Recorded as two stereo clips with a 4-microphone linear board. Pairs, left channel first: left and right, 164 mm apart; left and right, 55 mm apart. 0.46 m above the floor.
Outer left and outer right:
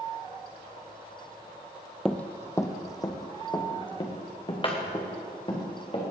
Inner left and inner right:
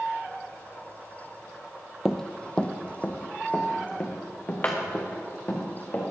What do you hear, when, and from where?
2.0 s running footsteps: 5° left (ahead or behind), 0.6 m; by 6.0 s 35° left (ahead or behind), 3 m